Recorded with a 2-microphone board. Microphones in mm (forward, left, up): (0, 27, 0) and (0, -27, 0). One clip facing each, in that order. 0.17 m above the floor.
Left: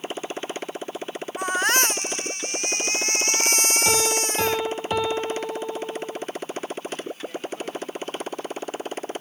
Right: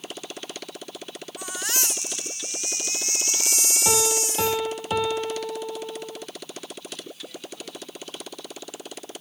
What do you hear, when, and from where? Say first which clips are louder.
0.0 s a motorcycle: left 6 dB; 30° left (ahead or behind); by 9.2 s 35° left (ahead or behind)
1.4 s a baby crying: left 11 dB; 45° left (ahead or behind)
3.9 s a piano: right 1 dB; centre (ahead or behind)